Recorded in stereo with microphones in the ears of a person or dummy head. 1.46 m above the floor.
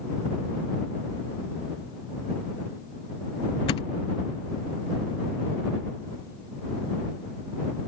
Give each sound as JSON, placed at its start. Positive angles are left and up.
{"t": 3.7, "sound": "a thud", "side_deg": 30}